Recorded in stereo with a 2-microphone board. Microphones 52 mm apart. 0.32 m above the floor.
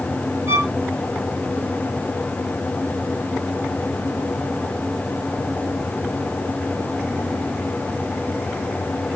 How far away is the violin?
About 3 m.